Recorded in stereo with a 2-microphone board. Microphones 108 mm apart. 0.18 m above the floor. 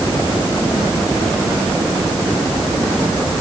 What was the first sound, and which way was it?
Only background noise.